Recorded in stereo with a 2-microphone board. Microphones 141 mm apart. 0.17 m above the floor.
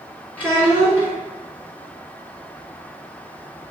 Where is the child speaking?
10° left (ahead or behind), 1.4 m.